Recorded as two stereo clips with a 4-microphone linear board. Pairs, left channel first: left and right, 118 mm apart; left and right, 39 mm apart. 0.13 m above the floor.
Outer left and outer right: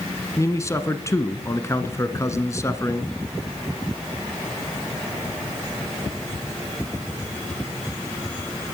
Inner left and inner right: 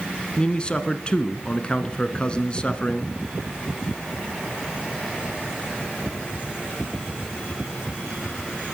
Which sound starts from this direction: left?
A man speaking, at 0.4 s.